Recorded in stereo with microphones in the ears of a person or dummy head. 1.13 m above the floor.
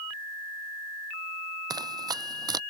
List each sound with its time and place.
1.7 s running footsteps: 20° right (ahead or behind)